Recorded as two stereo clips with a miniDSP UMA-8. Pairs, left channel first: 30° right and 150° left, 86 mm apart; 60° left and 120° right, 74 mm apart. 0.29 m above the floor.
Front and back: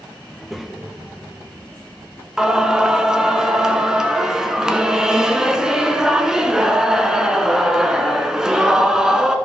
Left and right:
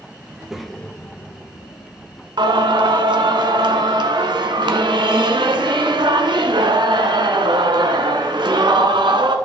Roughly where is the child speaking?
Right.